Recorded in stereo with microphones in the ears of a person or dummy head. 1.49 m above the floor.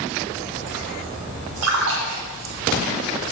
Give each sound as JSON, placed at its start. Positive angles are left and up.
{"t": 1.6, "sound": "a splash", "side_deg": -80, "distance_m": 1.7}